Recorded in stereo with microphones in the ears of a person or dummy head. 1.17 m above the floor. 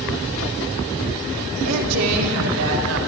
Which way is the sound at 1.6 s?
85° right.